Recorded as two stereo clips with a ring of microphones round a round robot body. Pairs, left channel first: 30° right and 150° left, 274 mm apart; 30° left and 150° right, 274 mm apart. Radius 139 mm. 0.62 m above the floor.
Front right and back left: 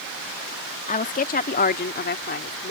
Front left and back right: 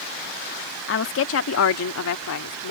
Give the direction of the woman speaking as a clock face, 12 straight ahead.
11 o'clock.